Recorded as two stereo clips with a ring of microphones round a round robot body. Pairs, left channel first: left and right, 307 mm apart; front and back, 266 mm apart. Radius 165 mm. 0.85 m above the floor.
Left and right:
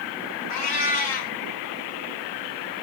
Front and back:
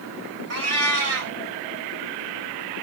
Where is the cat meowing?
155° left, 1.4 m.